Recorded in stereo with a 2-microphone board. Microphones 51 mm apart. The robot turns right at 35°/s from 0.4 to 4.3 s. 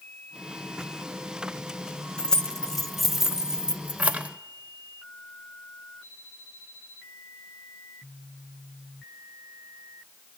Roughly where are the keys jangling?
Centre.